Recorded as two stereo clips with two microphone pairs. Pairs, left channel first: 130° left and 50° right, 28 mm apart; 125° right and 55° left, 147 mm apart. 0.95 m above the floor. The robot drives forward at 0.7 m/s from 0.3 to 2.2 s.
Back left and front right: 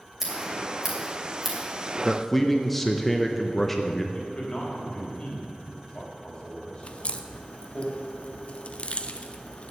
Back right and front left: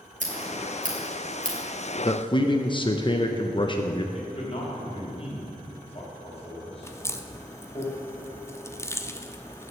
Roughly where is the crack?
Behind.